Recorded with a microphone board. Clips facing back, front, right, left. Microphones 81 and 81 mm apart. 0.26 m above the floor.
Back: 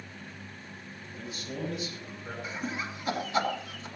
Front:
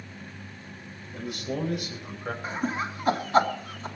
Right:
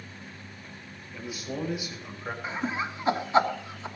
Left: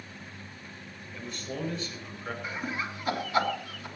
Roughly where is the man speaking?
Ahead.